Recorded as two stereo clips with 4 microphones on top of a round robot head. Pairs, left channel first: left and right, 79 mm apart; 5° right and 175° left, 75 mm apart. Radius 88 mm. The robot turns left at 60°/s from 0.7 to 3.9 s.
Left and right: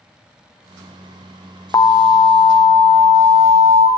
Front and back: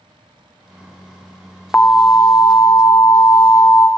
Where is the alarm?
65° left, 0.6 m; by 3.9 s 65° right, 0.6 m.